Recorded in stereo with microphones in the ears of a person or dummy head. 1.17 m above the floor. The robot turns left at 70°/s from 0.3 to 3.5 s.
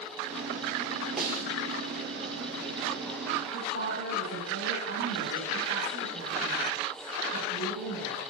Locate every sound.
1.2 s a snare drum: 5° right (ahead or behind), 4 m; by 1.5 s 25° right (ahead or behind), 4 m
3.5 s a woman speaking: 75° right (ahead or behind), 8 m